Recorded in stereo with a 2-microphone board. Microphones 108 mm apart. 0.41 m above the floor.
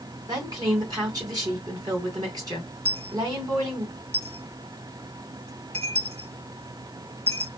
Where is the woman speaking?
40° right (ahead or behind), 2 m.